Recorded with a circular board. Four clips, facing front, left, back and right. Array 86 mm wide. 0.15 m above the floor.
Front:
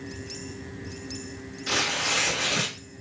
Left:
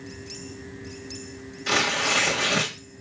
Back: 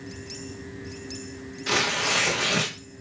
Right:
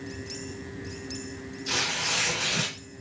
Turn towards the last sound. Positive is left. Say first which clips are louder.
# left 8 dB, back 3 dB
turn(degrees=120)